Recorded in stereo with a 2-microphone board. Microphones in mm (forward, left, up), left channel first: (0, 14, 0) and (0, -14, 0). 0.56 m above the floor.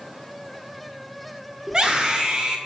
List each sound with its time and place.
1.7 s a scream: 30° right (ahead or behind), 1.0 m